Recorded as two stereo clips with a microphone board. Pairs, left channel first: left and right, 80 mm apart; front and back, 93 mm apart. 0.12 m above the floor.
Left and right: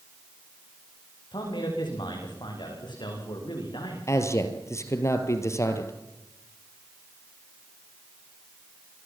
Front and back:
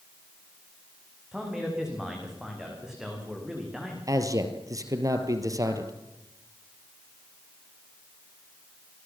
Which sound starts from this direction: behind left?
A man speaking, at 4.1 s.